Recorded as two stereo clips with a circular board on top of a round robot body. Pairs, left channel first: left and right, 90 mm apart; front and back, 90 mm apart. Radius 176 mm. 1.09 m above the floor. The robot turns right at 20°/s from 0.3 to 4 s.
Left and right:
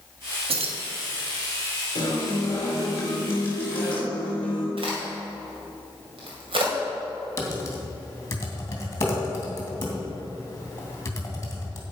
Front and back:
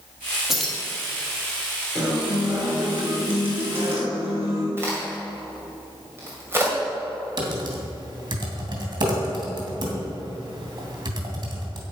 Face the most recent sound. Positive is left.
turn(degrees=150)